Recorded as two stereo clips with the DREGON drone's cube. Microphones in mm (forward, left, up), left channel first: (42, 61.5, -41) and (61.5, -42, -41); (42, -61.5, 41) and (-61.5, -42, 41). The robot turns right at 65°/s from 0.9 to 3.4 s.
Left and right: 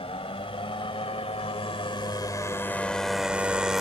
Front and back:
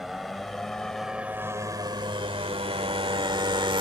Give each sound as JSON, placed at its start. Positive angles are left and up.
{"t": 0.0, "sound": "a motorcycle", "azimuth_deg": 80}